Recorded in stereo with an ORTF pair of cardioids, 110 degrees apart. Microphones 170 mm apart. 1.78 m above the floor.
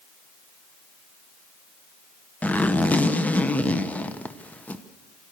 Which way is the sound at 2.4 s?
10° left.